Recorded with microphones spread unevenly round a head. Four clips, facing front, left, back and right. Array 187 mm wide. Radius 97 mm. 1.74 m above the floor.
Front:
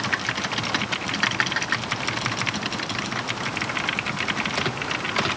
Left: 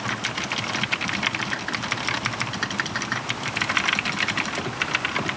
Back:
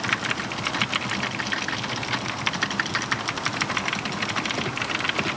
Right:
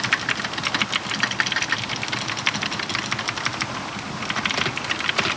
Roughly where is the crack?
I don't hear a crack.